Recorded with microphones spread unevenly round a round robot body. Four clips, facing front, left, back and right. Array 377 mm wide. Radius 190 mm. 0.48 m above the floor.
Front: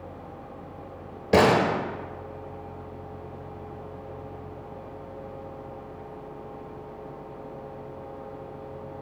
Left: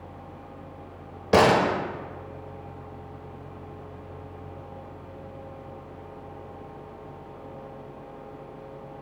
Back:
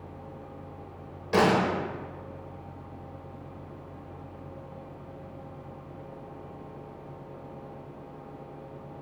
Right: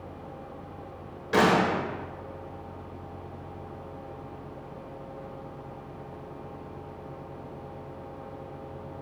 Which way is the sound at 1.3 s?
40° left.